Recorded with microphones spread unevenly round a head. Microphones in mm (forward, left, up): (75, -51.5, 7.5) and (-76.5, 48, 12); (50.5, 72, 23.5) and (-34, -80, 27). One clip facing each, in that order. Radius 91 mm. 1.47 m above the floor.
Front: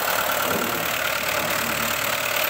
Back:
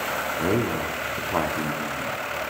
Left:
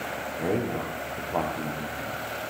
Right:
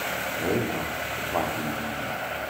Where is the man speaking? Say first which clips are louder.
Back 2 dB, even; 145° left, 0.9 m.